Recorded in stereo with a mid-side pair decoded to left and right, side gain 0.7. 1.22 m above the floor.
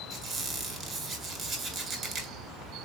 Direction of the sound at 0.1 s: 35° right.